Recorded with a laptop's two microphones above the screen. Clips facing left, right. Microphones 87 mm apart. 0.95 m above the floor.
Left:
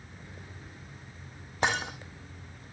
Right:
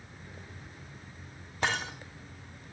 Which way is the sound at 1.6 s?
20° left (ahead or behind).